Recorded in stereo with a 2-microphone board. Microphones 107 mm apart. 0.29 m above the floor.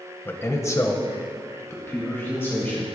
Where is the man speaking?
20° left (ahead or behind), 1.2 m.